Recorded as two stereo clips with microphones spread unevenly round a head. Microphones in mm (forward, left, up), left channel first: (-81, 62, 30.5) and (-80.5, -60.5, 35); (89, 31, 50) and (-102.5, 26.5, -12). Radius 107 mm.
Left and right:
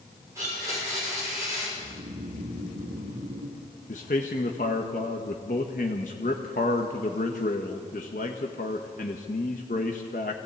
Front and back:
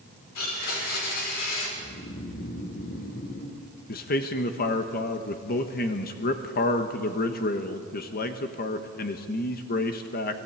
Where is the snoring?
55° right, 1.6 m.